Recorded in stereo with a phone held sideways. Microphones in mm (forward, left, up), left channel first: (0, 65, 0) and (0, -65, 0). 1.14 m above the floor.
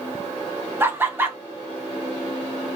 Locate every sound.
0.8 s laughter: 15° right (ahead or behind), 0.6 m